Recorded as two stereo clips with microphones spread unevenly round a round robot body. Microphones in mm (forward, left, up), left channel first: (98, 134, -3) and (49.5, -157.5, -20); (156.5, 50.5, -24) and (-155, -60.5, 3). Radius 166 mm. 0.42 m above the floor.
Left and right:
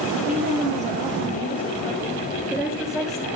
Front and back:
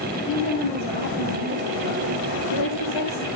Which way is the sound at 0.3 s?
35° right.